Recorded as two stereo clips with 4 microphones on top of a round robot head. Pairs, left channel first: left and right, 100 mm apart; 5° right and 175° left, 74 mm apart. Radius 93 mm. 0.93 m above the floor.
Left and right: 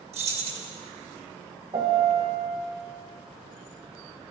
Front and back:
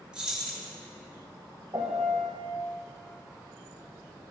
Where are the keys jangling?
105° right, 1.7 m.